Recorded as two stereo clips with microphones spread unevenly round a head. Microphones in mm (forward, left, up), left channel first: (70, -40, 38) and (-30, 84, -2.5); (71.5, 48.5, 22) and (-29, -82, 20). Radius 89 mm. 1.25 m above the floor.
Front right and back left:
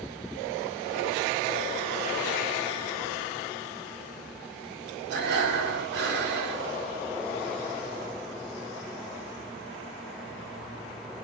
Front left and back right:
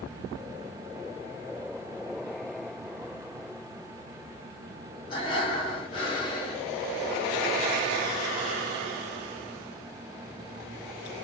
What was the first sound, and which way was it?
Breathing, 115° left.